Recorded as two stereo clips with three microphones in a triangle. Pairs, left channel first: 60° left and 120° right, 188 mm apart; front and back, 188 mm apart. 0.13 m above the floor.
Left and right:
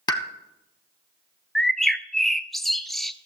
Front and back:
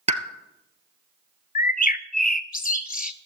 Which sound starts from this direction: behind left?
A pop, at 0.1 s.